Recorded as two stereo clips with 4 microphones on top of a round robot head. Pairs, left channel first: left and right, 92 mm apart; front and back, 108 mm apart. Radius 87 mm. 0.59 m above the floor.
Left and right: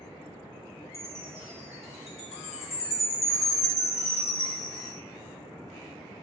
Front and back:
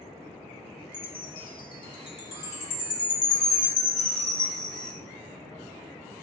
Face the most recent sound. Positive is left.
turn(degrees=35)